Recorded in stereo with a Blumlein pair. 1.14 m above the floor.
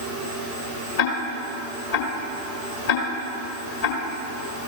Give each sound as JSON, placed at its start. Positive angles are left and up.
{"t": 1.0, "sound": "ticking", "azimuth_deg": 50, "distance_m": 1.6}